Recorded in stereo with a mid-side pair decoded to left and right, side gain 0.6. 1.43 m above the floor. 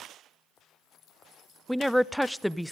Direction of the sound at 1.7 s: Straight ahead.